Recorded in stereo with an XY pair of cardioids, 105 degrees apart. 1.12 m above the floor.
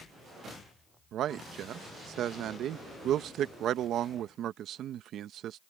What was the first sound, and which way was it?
A man speaking, 70° right.